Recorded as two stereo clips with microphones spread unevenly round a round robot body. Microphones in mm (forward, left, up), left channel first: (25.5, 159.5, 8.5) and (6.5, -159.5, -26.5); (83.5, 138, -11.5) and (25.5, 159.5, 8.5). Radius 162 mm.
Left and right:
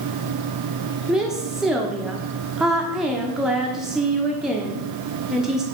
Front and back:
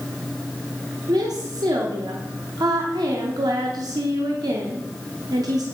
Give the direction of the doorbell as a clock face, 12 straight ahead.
I don't hear a doorbell.